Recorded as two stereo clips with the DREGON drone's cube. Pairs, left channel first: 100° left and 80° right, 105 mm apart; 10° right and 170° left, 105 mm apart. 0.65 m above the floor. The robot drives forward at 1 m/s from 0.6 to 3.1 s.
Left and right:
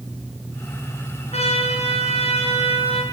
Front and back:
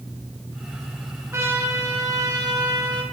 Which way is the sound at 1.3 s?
105° left.